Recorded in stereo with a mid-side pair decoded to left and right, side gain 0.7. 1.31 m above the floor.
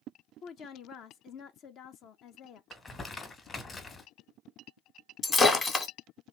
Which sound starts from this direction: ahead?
Breaking glass, at 5.2 s.